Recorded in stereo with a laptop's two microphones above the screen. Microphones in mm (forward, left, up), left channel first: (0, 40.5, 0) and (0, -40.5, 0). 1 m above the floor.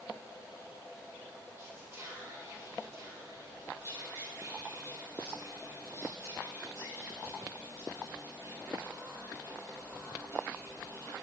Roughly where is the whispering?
Right.